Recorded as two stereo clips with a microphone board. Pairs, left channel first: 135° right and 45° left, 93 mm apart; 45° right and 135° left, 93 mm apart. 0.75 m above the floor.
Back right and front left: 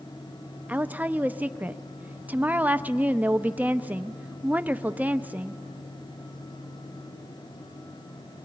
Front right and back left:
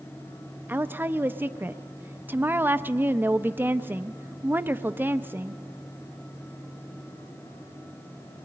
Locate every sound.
0.7 s a woman speaking: 100° left, 0.5 m